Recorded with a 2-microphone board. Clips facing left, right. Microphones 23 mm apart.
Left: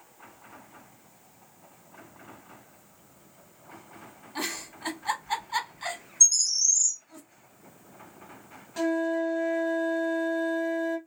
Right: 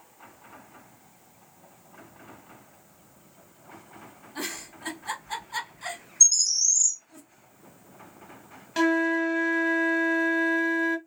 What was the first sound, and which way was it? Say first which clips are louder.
A giggle: left 2 dB; 30° left (ahead or behind).